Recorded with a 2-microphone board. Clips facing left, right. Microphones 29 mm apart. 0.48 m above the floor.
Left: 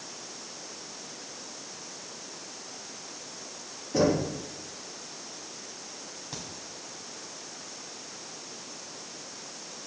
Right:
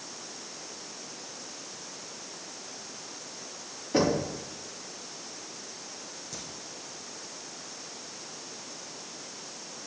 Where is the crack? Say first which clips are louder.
Left 3 dB; 45° left (ahead or behind), 3 m.